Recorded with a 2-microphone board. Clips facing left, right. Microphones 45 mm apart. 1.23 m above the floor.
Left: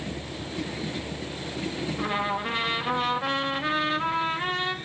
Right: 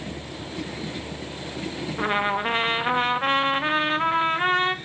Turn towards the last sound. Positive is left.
turn(degrees=-40)  # may be behind; listen again after turning